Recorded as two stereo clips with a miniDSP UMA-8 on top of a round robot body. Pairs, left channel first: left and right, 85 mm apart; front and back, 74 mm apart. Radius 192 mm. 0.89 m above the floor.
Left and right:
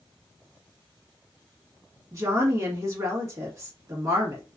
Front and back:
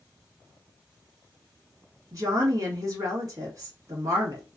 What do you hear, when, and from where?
2.1 s a woman speaking: 140° right, 1.9 m